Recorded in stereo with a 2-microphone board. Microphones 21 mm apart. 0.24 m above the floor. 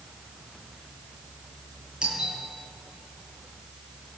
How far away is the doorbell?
About 9 m.